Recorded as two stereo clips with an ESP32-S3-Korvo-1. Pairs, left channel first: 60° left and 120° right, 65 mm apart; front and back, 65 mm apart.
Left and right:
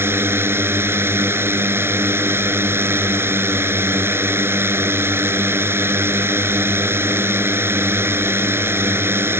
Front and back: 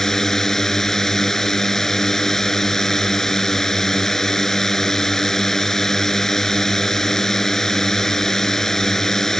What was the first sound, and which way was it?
A drone, 80° right.